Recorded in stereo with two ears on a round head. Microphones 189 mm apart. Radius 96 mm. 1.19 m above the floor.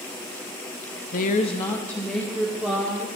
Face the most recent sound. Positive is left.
turn(degrees=-10)  # may be behind; listen again after turning